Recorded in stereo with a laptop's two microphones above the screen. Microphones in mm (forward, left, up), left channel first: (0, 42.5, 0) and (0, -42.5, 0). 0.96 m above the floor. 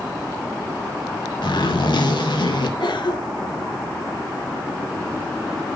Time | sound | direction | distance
1.4 | a zipper | 80° left | 3.5 m
2.8 | a cough | 70° left (ahead or behind) | 2 m